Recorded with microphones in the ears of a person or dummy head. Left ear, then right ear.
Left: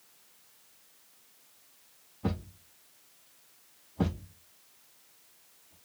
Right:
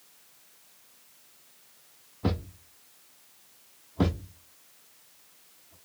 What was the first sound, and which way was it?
A thud, 10° right (ahead or behind).